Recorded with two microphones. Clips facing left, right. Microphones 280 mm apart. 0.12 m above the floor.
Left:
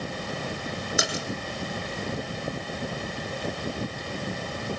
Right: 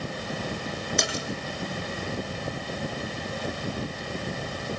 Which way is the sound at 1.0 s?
5° left (ahead or behind).